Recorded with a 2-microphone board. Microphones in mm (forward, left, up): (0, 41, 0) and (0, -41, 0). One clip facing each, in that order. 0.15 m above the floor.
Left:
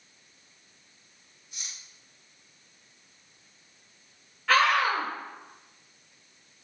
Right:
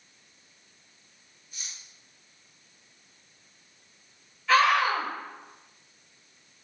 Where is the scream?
60° left (ahead or behind), 3.5 m.